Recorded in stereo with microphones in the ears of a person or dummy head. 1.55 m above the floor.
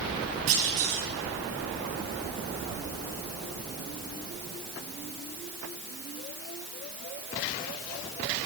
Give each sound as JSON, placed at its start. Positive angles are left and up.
{"t": 0.5, "sound": "a clunk", "side_deg": -50, "distance_m": 6.5}